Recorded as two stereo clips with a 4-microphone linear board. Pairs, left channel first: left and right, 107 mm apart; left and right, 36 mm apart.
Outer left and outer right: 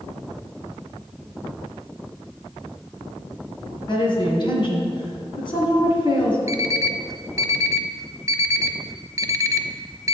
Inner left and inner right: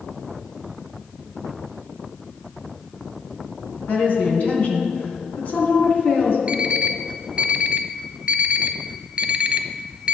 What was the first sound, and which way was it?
A woman speaking, 50° left (ahead or behind).